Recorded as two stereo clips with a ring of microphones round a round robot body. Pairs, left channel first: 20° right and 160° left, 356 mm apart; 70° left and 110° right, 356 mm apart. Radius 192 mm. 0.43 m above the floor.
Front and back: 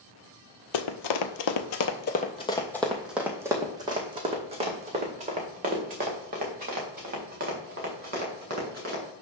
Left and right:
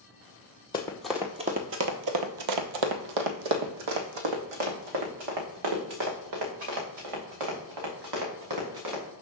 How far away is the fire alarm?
No fire alarm in this recording.